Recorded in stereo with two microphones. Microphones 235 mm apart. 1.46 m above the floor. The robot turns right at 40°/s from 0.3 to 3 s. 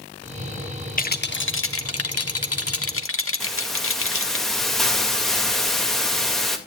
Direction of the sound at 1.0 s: 35° left.